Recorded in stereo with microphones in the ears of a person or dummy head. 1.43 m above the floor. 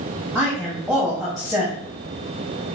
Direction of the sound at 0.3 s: Centre (ahead or behind).